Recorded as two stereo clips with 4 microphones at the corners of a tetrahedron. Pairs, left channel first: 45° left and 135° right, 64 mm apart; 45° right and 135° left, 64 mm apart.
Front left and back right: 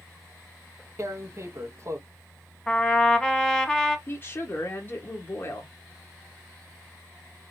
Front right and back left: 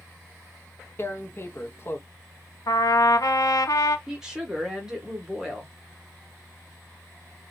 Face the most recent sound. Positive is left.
turn(degrees=65)